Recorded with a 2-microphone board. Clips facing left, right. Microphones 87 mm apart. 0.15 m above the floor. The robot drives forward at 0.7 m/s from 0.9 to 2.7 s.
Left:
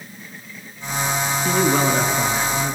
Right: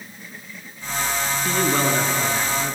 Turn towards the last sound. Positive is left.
turn(degrees=5)  # may be behind; listen again after turning